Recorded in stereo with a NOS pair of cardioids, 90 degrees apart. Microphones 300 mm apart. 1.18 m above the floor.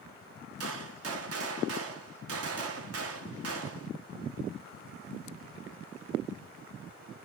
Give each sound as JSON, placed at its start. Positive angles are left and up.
{"t": 0.6, "sound": "a gunshot", "azimuth_deg": -55, "distance_m": 0.9}